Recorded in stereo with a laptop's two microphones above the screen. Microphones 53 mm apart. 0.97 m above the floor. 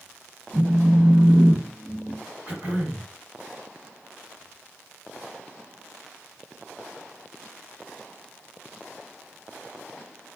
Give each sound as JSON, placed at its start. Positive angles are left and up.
{"t": 0.5, "sound": "a phone buzzing", "side_deg": -70, "distance_m": 1.1}
{"t": 2.5, "sound": "throat clearing", "side_deg": -25, "distance_m": 2.0}